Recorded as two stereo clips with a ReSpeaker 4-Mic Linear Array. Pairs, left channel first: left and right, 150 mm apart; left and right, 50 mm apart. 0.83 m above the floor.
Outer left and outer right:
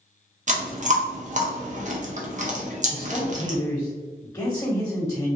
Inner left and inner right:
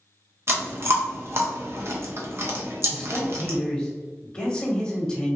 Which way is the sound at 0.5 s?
50° right (ahead or behind).